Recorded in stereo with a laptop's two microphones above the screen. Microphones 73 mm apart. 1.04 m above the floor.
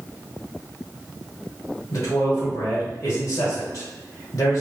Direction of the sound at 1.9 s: 55° left (ahead or behind).